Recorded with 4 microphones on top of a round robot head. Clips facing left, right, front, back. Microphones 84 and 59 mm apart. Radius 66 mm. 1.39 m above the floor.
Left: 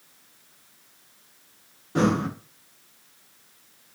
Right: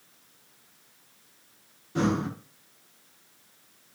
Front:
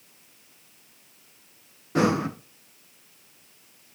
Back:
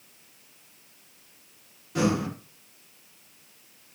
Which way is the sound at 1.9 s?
45° left.